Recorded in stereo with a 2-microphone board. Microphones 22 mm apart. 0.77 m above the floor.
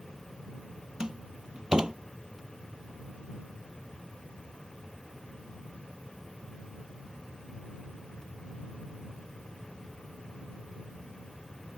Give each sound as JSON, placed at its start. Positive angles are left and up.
{"t": 1.0, "sound": "a door slam", "side_deg": -35}